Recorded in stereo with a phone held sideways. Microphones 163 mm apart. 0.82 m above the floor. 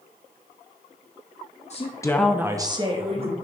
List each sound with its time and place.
1.7 s a woman speaking: 40° left (ahead or behind), 0.9 m; by 3.3 s 40° right (ahead or behind), 2 m